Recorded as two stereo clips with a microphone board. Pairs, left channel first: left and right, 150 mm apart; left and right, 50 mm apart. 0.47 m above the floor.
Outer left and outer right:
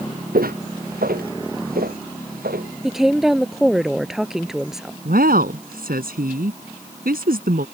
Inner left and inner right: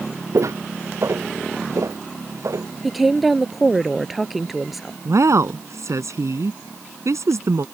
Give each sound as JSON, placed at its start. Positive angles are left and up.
{"t": 0.3, "sound": "footsteps", "side_deg": -75}
{"t": 2.8, "sound": "a woman speaking", "side_deg": -5}
{"t": 5.0, "sound": "a woman speaking", "side_deg": -80}